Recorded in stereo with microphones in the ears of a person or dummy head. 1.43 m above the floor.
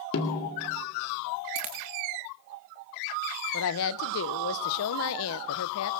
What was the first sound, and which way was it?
A snare drum, 65° left (ahead or behind).